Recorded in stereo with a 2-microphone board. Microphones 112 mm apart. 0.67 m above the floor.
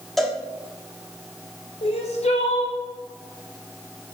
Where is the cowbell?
Centre (ahead or behind), 1.7 m.